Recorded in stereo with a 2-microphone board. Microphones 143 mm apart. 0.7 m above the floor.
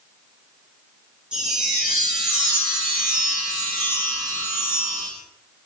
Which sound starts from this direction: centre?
A chime, at 1.3 s.